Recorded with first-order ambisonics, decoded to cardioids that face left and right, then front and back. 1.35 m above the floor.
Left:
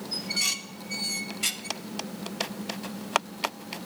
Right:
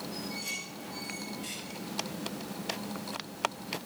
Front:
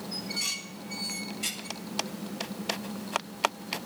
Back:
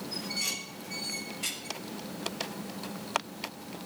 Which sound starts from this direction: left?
Dishes clattering, at 0.1 s.